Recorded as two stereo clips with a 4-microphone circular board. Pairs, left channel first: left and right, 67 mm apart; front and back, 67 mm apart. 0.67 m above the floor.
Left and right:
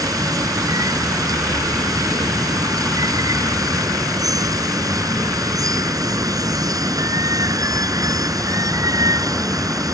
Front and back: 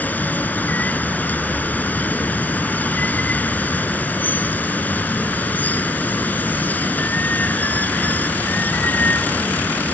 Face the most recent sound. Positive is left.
turn(degrees=-65)